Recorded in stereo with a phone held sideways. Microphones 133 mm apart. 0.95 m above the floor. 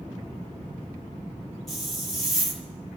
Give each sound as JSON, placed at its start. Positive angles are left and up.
{"t": 1.7, "sound": "a hiss", "side_deg": 0, "distance_m": 1.8}